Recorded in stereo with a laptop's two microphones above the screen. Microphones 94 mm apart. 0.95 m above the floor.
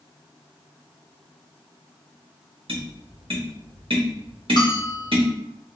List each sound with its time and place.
2.7 s tapping: 70° right (ahead or behind), 1.1 m
4.6 s a bell: 50° left (ahead or behind), 1.0 m